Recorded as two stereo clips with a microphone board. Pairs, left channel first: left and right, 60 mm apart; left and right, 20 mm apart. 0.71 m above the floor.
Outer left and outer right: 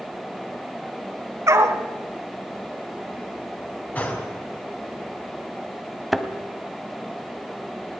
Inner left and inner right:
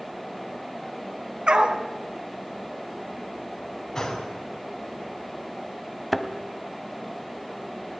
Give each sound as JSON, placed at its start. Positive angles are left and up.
{"t": 1.5, "sound": "a dog barking", "side_deg": -50, "distance_m": 1.9}
{"t": 4.0, "sound": "a gunshot", "side_deg": 30, "distance_m": 4.0}
{"t": 6.1, "sound": "a thud", "side_deg": 0, "distance_m": 1.4}